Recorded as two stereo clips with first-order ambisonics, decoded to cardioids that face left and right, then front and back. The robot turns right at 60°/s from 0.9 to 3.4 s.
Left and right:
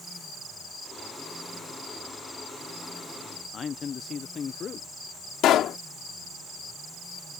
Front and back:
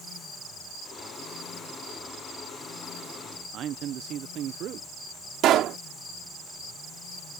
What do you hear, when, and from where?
3.5 s a man speaking: 145° left
5.4 s a pop: 135° left